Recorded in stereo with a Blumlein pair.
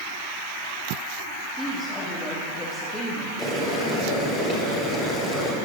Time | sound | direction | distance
1.6 | a woman speaking | 5° left | 2.5 m
3.4 | boiling | straight ahead | 3.5 m